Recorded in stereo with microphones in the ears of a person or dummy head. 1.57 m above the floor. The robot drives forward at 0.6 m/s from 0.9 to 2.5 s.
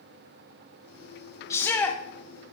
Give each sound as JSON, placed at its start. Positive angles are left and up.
{"t": 1.5, "sound": "a shout", "side_deg": 20, "distance_m": 0.6}